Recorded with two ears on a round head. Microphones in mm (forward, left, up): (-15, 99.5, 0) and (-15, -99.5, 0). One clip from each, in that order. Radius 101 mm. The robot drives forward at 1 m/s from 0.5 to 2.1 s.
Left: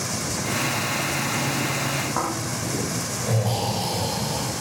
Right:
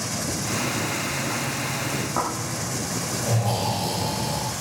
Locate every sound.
2.2 s snoring: centre (ahead or behind), 8 m